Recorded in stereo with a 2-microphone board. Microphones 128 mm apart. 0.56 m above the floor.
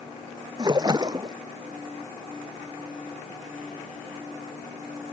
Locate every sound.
0.6 s a splash: 30° right (ahead or behind)